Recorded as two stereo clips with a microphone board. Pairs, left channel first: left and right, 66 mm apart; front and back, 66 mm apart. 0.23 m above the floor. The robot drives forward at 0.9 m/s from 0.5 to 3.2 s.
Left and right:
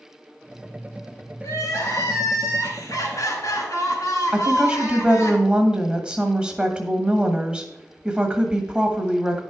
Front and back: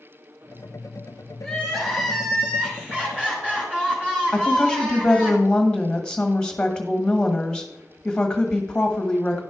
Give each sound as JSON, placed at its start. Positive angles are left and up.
{"t": 1.4, "sound": "crying", "azimuth_deg": 80, "distance_m": 3.0}
{"t": 4.3, "sound": "a woman speaking", "azimuth_deg": -55, "distance_m": 1.3}